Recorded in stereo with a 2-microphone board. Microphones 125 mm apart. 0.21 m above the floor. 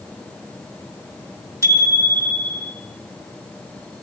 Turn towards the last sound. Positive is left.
turn(degrees=-30)  # may be behind; listen again after turning